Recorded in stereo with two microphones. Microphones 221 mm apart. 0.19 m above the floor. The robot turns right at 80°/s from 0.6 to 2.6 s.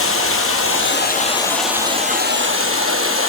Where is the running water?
95° left, 3 m; by 3.3 s 105° right, 3 m.